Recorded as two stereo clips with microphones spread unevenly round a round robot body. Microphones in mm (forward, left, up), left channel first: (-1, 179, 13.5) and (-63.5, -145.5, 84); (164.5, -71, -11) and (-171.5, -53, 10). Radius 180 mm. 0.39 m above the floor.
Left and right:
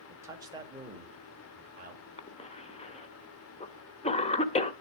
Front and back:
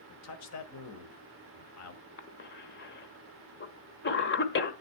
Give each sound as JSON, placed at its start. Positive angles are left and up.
{"t": 0.1, "sound": "a man speaking", "azimuth_deg": -10, "distance_m": 1.5}
{"t": 2.2, "sound": "a cough", "azimuth_deg": 35, "distance_m": 1.3}